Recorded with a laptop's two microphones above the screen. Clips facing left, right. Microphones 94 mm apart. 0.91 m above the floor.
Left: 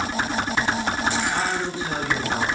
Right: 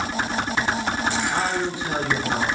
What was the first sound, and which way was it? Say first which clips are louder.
A man speaking: right 1 dB; 20° right (ahead or behind).